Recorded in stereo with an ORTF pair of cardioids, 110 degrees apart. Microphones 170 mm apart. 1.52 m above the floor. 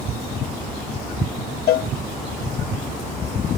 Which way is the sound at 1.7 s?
70° left.